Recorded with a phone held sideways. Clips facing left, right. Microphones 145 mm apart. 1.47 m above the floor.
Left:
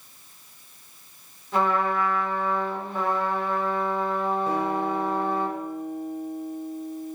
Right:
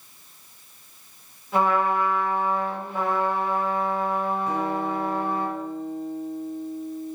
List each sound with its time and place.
1.5 s a trumpet: 5° right (ahead or behind), 4.5 m
4.5 s a guitar: 30° left (ahead or behind), 3.5 m